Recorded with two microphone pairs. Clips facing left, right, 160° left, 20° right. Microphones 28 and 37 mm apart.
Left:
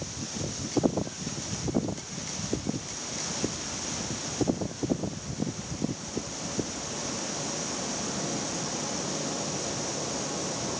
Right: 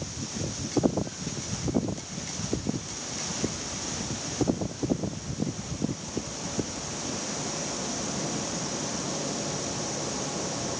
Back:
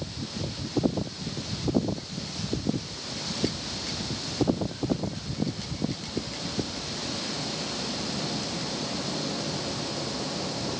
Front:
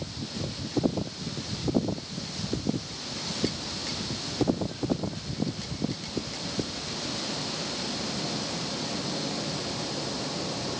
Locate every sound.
Only background noise.